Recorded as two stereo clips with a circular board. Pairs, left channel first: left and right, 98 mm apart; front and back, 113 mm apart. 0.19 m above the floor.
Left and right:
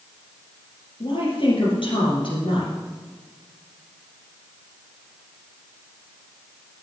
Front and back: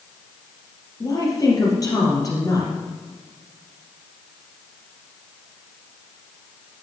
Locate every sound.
1.0 s a woman speaking: 55° left, 4 m